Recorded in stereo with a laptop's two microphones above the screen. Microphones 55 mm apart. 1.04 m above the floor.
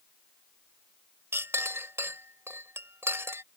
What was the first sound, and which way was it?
A clink, 50° right (ahead or behind).